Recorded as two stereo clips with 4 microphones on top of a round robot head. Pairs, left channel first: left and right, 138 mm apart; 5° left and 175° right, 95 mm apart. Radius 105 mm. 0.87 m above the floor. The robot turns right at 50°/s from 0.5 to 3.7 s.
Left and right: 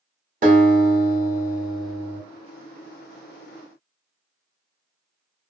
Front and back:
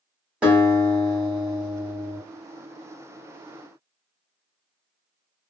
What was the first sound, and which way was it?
A guitar, 95° right.